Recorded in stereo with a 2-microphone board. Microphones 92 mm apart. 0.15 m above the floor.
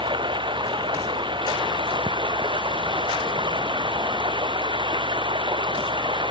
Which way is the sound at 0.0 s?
60° right (ahead or behind).